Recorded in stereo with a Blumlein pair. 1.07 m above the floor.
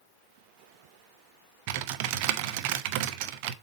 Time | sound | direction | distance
1.7 | typing on a keyboard | 45° right | 0.6 m